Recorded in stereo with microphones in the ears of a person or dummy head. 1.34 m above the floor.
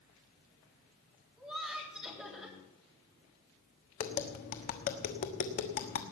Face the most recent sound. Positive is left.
turn(degrees=40)  # may be behind; listen again after turning